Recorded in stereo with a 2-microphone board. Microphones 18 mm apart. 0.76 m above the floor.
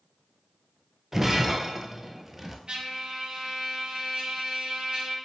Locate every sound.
1.1 s breaking glass: 15° right (ahead or behind), 0.8 m
2.7 s a trumpet: 60° right (ahead or behind), 1.2 m